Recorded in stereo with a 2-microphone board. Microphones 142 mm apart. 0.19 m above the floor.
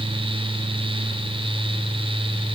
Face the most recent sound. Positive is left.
No sound to turn to.